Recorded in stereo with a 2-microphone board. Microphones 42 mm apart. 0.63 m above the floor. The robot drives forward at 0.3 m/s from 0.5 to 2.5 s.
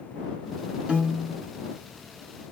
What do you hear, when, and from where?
0.9 s a piano: 20° right (ahead or behind), 1.1 m